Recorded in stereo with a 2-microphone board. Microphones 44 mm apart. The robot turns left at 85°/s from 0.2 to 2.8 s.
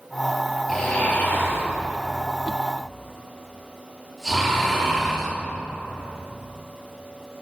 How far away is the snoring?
About 6 m.